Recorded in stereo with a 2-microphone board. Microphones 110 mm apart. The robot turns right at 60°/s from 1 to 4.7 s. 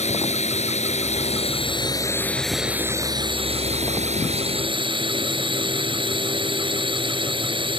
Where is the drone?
90° left; by 7.8 s 50° right.